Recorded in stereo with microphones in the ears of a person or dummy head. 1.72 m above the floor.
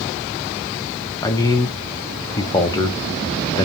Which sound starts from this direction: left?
A man speaking, at 1.2 s.